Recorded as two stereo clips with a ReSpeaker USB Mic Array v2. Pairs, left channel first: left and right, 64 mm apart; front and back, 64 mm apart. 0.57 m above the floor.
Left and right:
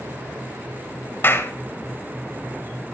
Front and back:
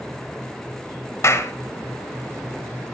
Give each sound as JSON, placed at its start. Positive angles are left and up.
{"t": 1.2, "sound": "a clap", "azimuth_deg": 40, "distance_m": 1.9}